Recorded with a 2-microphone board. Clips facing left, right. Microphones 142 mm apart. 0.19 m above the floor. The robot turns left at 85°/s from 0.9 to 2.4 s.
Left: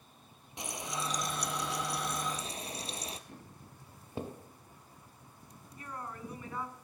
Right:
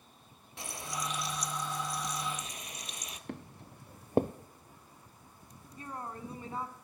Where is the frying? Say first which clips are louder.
Left 1 dB; 160° left, 1.2 m; by 3.2 s 35° left, 1.2 m.